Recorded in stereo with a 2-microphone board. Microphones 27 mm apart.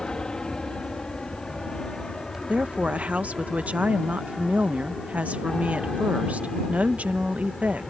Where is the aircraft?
30° left (ahead or behind); by 7.9 s 25° left (ahead or behind).